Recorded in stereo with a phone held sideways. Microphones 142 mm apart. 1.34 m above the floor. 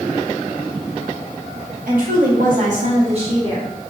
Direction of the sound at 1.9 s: 80° right.